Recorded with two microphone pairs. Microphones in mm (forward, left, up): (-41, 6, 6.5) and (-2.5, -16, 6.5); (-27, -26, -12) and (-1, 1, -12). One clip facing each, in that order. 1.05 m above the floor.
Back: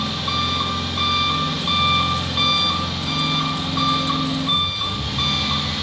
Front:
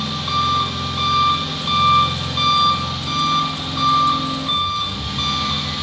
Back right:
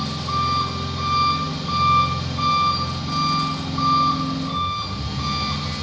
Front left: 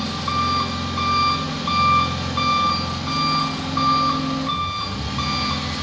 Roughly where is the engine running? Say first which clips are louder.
Front 3 dB, front left 1 dB; ahead left.